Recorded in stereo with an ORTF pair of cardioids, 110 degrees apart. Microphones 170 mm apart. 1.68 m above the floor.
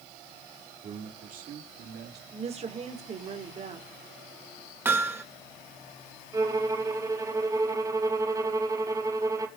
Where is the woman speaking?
40° right, 5.5 m.